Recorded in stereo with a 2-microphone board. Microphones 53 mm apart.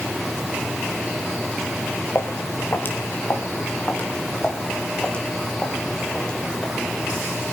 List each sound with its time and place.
2.1 s footsteps: 45° left (ahead or behind), 3 m; by 7.3 s 15° left (ahead or behind), 5 m